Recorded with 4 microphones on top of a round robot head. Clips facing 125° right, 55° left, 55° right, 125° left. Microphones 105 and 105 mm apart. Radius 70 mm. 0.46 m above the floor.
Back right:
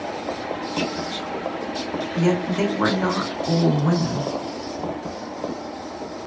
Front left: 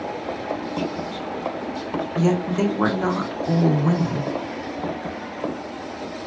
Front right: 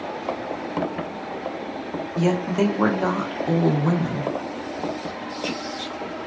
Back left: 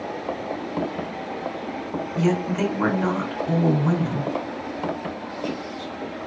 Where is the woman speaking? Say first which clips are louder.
Even, front right 1 dB; 25° right, 0.9 m.